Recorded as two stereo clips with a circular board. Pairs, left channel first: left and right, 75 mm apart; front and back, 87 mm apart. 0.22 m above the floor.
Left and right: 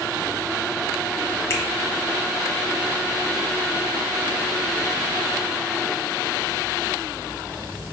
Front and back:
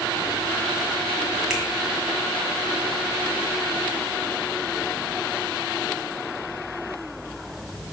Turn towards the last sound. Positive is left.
turn(degrees=100)